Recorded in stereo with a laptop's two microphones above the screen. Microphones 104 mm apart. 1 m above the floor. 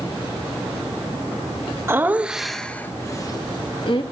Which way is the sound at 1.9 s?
20° right (ahead or behind).